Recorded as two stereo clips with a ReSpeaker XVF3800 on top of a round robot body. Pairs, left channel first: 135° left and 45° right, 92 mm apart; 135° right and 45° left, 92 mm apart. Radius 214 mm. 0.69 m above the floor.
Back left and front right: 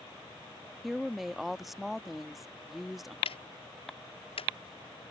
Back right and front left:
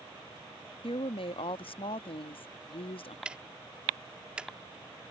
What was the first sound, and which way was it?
A woman speaking, 135° right.